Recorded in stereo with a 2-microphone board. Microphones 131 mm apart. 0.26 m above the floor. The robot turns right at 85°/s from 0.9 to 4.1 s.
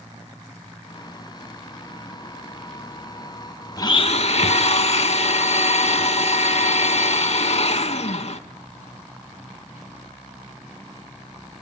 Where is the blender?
25° left (ahead or behind), 0.6 m; by 8.4 s 55° left (ahead or behind), 0.6 m.